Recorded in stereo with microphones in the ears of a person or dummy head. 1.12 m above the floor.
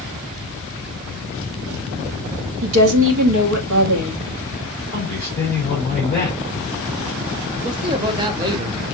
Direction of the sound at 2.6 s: 80° right.